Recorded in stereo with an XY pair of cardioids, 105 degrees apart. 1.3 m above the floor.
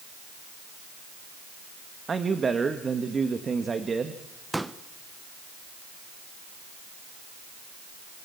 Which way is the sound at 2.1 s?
30° right.